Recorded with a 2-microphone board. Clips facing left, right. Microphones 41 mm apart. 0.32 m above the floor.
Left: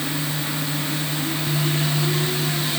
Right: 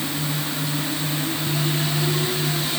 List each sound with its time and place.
Only background noise.